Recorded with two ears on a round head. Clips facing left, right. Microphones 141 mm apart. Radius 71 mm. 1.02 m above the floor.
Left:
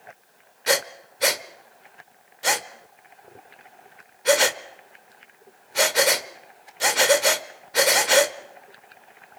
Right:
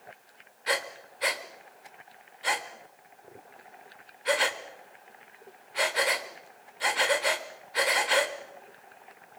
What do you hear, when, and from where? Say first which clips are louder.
0.7 s breathing: left 7 dB; 50° left (ahead or behind), 1.0 m